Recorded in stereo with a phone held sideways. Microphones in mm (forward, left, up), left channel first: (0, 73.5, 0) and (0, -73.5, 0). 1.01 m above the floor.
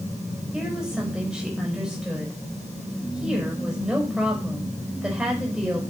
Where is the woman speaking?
5° right (ahead or behind), 5 m.